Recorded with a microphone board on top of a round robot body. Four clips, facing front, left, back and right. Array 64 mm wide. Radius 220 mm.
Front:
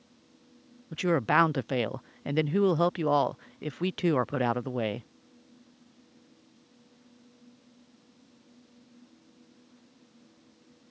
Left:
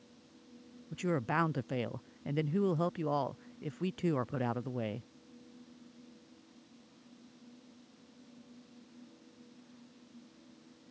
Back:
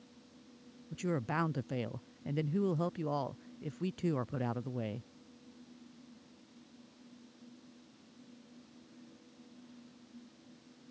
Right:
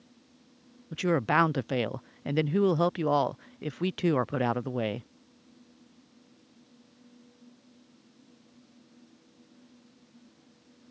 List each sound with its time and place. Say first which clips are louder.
0.9 s a woman speaking: right 8 dB, front 11 dB; 35° right